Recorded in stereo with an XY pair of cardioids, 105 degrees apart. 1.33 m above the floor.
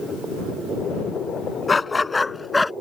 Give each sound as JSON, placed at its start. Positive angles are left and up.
{"t": 1.7, "sound": "a dog barking", "azimuth_deg": 25}